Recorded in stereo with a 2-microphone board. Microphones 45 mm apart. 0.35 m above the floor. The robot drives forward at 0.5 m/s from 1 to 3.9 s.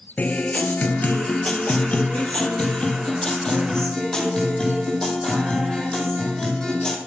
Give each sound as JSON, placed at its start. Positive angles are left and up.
{"t": 0.2, "sound": "a guitar", "side_deg": 35, "distance_m": 1.1}